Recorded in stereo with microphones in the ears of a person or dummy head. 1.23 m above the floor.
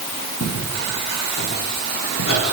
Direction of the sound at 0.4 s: 55° left (ahead or behind).